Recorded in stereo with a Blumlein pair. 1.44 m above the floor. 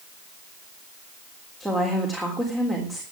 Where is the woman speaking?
5° right, 3.5 m.